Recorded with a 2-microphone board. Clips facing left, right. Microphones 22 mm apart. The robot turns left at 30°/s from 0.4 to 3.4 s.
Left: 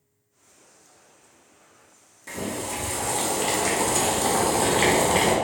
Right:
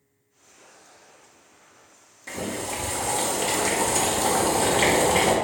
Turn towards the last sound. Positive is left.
turn(degrees=5)  # may be behind; listen again after turning